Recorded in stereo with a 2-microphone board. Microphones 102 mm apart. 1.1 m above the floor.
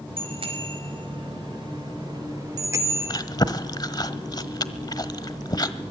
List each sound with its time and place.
0.2 s a bicycle bell: 65° right (ahead or behind), 4.5 m; by 3.2 s 20° right (ahead or behind), 1.9 m
3.1 s chewing: 45° left (ahead or behind), 1.2 m